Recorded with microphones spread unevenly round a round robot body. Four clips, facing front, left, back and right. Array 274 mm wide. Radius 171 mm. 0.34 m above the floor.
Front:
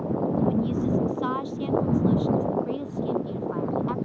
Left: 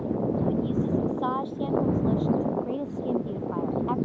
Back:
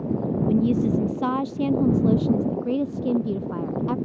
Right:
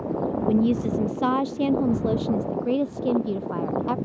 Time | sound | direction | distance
0.5 | a woman speaking | 150° right | ?